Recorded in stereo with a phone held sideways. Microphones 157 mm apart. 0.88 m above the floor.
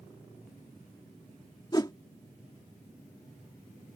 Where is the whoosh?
25° left (ahead or behind).